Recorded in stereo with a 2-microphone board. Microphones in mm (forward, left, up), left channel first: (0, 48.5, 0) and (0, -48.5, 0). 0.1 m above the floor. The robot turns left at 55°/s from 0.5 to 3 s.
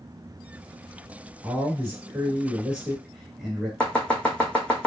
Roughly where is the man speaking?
Right.